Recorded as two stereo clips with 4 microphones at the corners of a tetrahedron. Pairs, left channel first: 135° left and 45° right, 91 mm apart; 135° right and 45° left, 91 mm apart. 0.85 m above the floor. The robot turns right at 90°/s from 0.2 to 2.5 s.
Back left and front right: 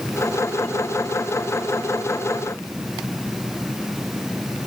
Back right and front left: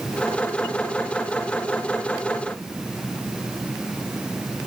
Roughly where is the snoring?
I don't hear snoring.